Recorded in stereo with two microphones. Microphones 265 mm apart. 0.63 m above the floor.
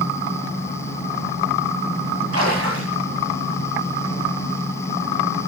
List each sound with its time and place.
2.3 s a splash: 60° right (ahead or behind), 9 m